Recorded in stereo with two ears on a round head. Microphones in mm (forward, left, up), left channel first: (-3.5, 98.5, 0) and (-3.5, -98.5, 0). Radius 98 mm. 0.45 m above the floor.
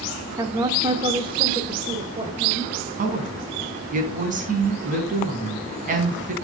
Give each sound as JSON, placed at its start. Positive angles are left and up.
{"t": 0.4, "sound": "a woman speaking", "side_deg": -15, "distance_m": 1.0}
{"t": 3.0, "sound": "a woman speaking", "side_deg": -35, "distance_m": 4.5}